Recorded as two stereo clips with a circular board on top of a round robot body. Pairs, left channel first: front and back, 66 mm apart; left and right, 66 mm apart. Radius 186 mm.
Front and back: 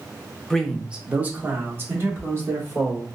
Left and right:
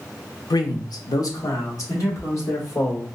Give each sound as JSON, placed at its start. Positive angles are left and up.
{"t": 0.5, "sound": "a man speaking", "azimuth_deg": 80, "distance_m": 0.6}